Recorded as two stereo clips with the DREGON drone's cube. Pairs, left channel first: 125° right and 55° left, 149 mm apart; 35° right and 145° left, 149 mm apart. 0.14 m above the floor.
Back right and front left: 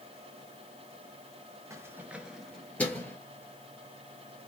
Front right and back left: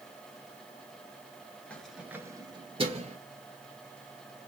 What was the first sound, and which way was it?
Keys jangling, 35° left.